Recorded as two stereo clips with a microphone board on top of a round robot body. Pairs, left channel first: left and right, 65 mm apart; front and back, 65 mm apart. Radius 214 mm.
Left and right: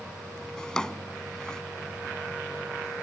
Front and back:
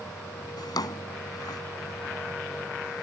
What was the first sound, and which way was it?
A drawer, 10° left.